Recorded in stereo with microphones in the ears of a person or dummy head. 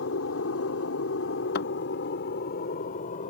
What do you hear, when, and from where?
0.0 s an aircraft: 70° left (ahead or behind); by 3.3 s 35° left (ahead or behind)
1.6 s a thud: 65° left (ahead or behind)